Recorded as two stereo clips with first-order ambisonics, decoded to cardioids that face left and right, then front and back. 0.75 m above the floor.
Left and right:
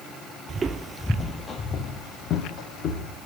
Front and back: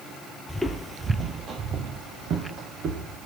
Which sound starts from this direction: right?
Footsteps, at 0.5 s.